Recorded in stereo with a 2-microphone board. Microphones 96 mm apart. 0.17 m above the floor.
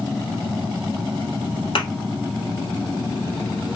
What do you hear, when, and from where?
1.8 s a thud: 65° left (ahead or behind), 1.3 m